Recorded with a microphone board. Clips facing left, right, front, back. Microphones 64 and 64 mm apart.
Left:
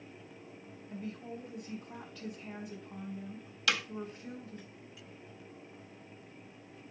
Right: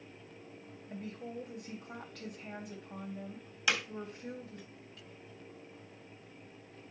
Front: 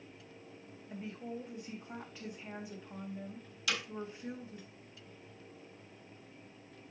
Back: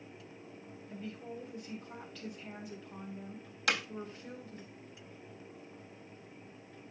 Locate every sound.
0.9 s a woman speaking: 70° right, 3.5 m
3.7 s hammering: 155° right, 1.6 m